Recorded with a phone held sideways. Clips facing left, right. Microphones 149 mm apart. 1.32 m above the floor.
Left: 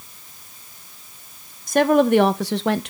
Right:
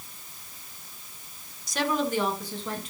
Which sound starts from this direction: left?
A woman speaking, at 1.7 s.